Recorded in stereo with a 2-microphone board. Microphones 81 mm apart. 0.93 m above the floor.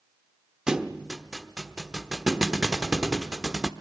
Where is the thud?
10° right (ahead or behind), 1.1 m.